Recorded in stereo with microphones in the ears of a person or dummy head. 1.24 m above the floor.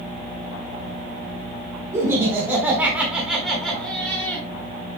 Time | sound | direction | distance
1.9 | laughter | 20° right (ahead or behind) | 4 m